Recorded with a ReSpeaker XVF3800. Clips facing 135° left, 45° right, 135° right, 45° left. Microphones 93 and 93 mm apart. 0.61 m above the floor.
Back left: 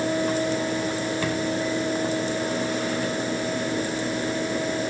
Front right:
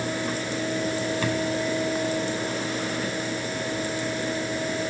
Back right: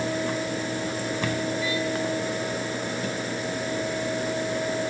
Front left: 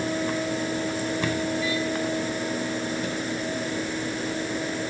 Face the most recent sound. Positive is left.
No sound to turn to.